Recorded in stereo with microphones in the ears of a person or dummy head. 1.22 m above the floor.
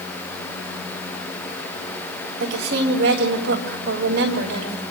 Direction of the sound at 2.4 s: 85° right.